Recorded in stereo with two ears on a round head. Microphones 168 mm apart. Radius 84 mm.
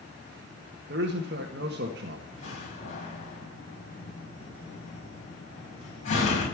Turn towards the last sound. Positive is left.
turn(degrees=40)  # may be behind; listen again after turning